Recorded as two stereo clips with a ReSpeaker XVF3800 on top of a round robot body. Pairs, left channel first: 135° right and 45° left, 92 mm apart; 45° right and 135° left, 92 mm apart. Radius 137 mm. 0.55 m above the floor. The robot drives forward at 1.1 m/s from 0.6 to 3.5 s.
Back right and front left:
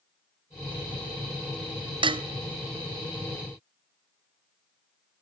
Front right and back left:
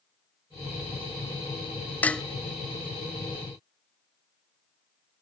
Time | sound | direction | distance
2.0 | dishes clattering | 25° left | 0.6 m